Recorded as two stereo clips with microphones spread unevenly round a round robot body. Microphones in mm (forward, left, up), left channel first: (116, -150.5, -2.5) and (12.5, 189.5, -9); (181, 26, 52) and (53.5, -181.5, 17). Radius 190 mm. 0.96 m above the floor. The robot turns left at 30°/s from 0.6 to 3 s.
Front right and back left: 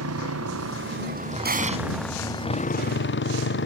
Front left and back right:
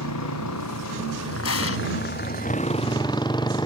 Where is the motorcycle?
60° left; by 3.7 s 15° right.